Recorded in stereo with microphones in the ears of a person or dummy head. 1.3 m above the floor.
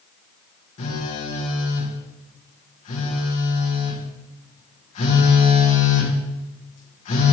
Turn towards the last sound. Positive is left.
turn(degrees=45)  # may be behind; listen again after turning